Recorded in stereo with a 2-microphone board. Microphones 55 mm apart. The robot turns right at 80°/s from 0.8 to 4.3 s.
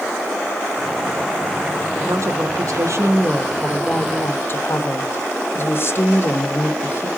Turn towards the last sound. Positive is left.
turn(degrees=50)